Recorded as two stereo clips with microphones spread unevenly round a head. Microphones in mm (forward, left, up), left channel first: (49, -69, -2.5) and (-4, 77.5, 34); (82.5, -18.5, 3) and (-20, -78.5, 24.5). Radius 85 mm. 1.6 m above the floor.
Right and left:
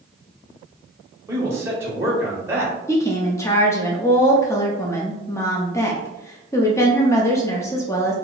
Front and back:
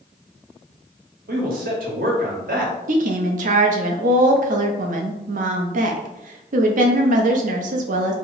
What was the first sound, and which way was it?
A man speaking, 175° right.